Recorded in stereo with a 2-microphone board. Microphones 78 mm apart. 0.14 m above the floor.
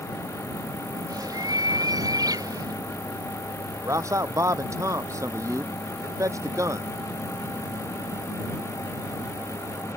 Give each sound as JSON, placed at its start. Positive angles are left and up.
{"t": 1.1, "sound": "a bird", "side_deg": -50}
{"t": 3.8, "sound": "a man speaking", "side_deg": -40}